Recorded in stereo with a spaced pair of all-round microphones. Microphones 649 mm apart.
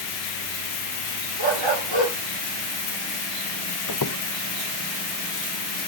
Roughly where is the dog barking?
Right.